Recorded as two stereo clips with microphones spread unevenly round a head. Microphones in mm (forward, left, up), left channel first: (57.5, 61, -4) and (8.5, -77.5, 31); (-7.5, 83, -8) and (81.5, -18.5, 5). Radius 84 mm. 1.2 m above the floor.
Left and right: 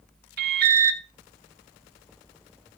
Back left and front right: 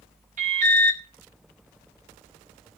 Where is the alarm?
95° right, 1.0 m.